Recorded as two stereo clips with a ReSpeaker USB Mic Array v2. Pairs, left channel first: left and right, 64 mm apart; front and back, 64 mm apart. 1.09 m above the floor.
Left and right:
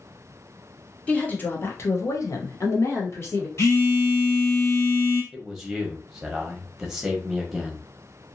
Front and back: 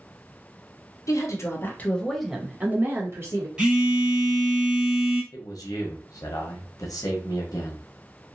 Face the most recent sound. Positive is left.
turn(degrees=-5)